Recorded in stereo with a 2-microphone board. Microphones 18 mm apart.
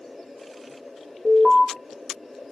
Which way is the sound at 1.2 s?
30° left (ahead or behind).